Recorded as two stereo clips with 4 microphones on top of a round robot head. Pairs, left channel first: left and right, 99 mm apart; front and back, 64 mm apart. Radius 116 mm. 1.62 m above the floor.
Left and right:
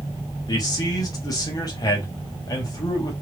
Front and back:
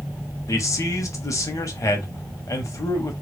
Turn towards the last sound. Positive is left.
turn(degrees=35)